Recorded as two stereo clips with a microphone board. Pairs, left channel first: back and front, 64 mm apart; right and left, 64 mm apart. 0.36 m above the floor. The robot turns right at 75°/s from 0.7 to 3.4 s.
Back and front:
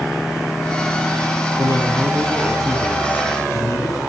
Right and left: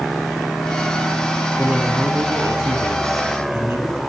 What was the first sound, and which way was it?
A man speaking, 5° left.